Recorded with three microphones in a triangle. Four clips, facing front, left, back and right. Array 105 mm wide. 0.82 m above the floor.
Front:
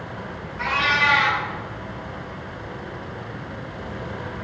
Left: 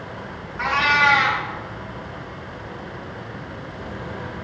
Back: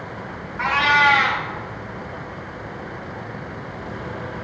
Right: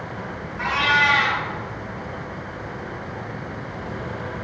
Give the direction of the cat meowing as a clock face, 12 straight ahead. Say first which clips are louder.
Left 2 dB, back 5 dB; 7 o'clock.